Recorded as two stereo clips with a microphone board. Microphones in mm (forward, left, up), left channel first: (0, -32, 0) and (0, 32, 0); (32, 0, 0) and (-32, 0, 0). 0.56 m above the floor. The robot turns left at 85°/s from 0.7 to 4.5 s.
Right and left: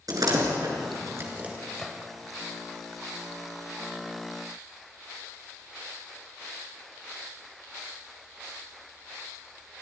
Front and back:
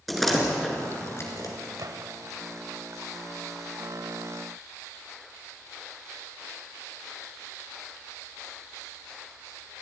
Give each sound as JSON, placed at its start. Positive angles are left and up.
{"t": 0.1, "sound": "a door slam", "azimuth_deg": 90, "distance_m": 4.5}
{"t": 1.8, "sound": "a gunshot", "azimuth_deg": -170, "distance_m": 1.5}